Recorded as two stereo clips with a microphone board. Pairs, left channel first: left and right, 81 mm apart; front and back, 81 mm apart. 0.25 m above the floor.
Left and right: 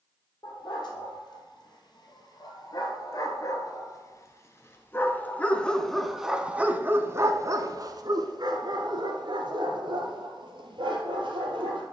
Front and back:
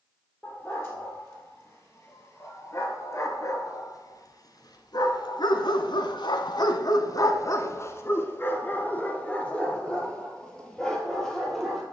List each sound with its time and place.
0.4 s a dog barking: 60° left, 3.5 m; by 11.8 s 85° right, 3 m